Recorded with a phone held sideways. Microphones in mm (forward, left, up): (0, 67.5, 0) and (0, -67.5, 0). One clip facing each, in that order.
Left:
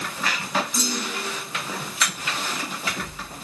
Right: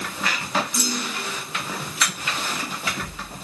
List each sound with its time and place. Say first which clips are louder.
0.7 s a clunk: even; 20° left (ahead or behind), 9.5 m